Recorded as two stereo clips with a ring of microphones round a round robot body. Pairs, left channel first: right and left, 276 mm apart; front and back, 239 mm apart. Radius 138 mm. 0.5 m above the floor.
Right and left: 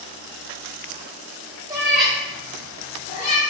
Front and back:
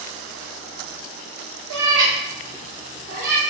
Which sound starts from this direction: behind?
A cat meowing, at 1.7 s.